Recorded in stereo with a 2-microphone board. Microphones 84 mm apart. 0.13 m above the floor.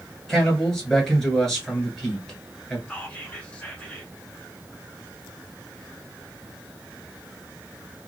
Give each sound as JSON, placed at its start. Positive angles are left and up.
{"t": 0.3, "sound": "a man speaking", "side_deg": 5, "distance_m": 1.6}
{"t": 2.9, "sound": "whispering", "side_deg": 15, "distance_m": 1.1}